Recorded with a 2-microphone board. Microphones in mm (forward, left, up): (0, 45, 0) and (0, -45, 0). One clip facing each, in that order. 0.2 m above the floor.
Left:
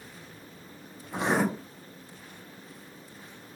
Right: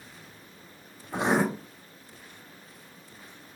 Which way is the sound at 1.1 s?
20° right (ahead or behind).